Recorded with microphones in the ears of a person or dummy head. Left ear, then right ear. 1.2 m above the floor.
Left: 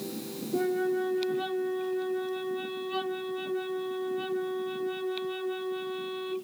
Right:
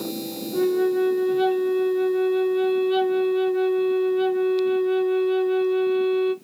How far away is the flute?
About 0.6 m.